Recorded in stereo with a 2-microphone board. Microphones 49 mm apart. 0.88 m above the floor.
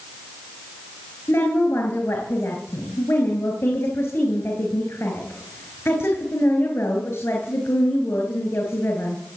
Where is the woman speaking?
65° left (ahead or behind), 4.5 m.